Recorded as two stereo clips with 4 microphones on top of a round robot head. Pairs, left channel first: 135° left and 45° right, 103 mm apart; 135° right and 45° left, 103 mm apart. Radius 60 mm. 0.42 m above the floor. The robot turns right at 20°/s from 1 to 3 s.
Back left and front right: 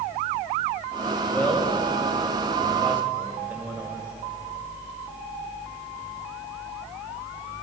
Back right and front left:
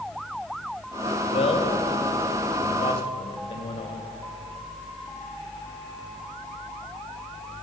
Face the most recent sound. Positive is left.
turn(degrees=-115)